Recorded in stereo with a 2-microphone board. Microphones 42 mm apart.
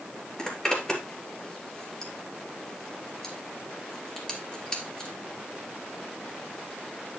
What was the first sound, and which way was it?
A zipper, 20° left (ahead or behind).